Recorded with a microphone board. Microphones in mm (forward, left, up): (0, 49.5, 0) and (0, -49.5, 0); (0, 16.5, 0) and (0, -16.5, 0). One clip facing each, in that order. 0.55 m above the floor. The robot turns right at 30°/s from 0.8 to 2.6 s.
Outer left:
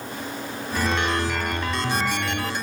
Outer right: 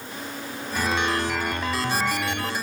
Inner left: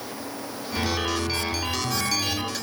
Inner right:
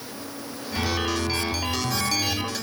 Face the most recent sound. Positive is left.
No sound to turn to.